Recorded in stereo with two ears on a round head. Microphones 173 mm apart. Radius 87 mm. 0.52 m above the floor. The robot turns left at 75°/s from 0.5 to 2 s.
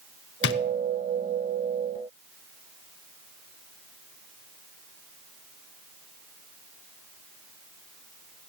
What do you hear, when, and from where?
0.4 s a drawer: 60° left (ahead or behind), 0.6 m; by 0.6 s 50° left (ahead or behind), 0.6 m